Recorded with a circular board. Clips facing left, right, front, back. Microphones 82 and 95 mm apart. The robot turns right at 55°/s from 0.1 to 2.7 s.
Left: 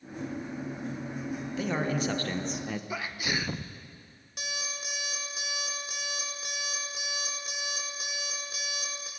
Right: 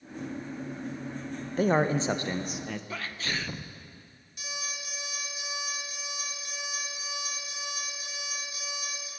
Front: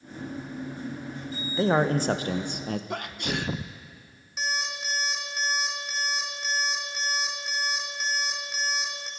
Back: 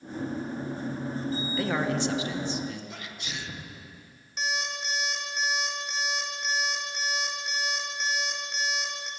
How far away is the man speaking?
About 0.7 m.